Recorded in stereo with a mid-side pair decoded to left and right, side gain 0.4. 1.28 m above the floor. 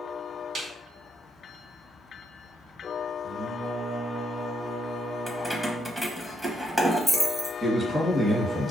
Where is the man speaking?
40° right, 1.3 m.